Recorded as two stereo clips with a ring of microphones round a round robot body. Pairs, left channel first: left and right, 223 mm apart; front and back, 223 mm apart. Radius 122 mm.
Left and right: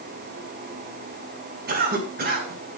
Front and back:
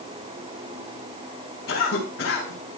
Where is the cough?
50° right, 4.5 m.